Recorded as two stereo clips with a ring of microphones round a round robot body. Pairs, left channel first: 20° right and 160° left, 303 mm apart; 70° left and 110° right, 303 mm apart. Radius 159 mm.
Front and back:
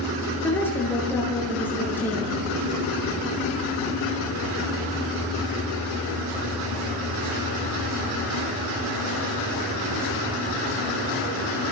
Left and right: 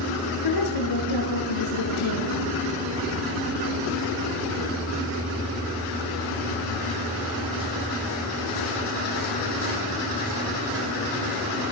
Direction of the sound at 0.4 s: 60° left.